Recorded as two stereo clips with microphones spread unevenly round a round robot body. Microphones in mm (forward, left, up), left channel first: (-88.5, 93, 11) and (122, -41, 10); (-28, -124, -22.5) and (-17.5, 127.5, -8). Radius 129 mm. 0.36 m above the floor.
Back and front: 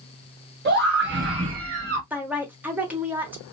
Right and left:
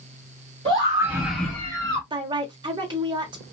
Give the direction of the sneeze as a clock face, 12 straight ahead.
I don't hear a sneeze.